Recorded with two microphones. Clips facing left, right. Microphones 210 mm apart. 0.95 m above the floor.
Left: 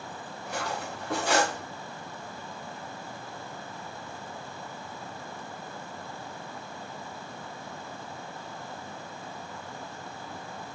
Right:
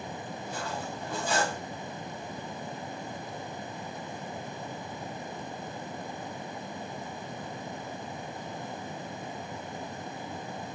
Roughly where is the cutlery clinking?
Left.